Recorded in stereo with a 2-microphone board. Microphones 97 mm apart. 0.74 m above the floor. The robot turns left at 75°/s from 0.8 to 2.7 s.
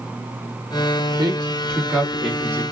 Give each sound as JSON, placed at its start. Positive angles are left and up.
{"t": 1.2, "sound": "a man speaking", "side_deg": -55, "distance_m": 1.6}